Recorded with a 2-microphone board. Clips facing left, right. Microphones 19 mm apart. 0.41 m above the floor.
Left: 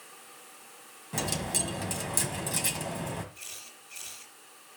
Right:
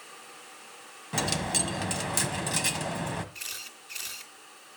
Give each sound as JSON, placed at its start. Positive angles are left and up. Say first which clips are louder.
{"t": 1.1, "sound": "a dropped coin", "louder": "right 3 dB", "side_deg": -30, "distance_m": 1.4}
{"t": 3.4, "sound": "a camera shutter", "louder": "right 6 dB", "side_deg": -75, "distance_m": 2.5}